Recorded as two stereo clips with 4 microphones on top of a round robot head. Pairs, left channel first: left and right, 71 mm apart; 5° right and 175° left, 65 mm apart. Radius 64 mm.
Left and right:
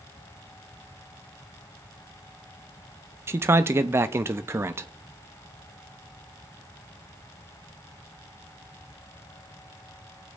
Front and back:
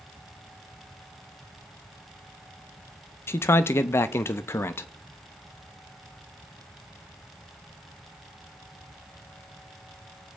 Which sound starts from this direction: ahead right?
A man speaking, at 3.3 s.